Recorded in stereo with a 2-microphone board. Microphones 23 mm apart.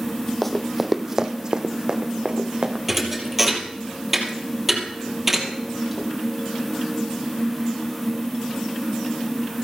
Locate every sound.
0.4 s running footsteps: 10° left (ahead or behind), 0.9 m; by 2.8 s 55° right (ahead or behind), 1.9 m
2.9 s a thud: 5° right (ahead or behind), 2.5 m